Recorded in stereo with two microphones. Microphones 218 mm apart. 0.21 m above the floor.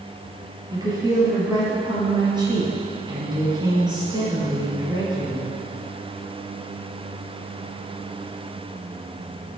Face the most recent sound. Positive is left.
turn(degrees=-20)  # may be behind; listen again after turning